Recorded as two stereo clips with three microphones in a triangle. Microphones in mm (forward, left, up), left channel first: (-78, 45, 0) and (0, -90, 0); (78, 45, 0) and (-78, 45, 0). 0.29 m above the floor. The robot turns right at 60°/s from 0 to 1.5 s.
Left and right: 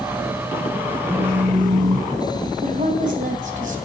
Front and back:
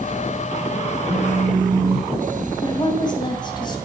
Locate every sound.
1.1 s a phone buzzing: 140° right, 1.1 m; by 2.5 s 115° right, 1.1 m
2.6 s a woman speaking: 55° right, 2.5 m